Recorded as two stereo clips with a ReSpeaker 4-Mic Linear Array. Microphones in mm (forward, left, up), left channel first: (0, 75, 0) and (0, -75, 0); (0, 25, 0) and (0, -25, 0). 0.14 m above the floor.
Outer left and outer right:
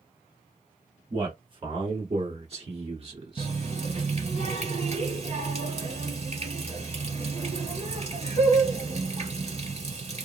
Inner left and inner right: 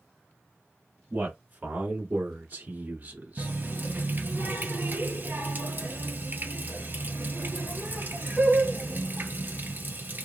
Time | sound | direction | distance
1.1 | a man speaking | 30° right (ahead or behind) | 1.5 m
3.4 | a running tap | 45° right (ahead or behind) | 1.6 m